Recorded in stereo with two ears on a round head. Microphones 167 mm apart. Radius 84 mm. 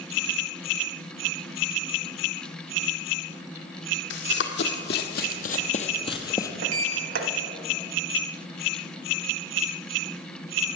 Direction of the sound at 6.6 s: 65° right (ahead or behind).